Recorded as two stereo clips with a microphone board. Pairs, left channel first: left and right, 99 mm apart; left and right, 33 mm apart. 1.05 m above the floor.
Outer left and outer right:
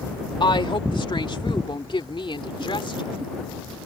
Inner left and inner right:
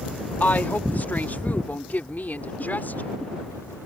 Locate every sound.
0.4 s a woman speaking: 55° left (ahead or behind); by 3.2 s 60° left (ahead or behind)